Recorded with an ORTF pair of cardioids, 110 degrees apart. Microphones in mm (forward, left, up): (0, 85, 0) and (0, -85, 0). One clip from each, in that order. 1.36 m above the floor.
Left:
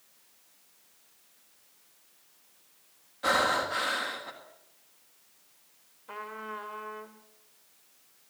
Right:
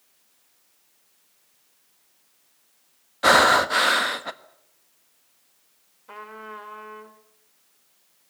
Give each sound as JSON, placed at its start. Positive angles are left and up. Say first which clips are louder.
{"t": 3.2, "sound": "breathing", "louder": "right 10 dB", "azimuth_deg": -65, "distance_m": 1.4}
{"t": 6.1, "sound": "a trumpet", "louder": "right 1 dB", "azimuth_deg": -10, "distance_m": 2.5}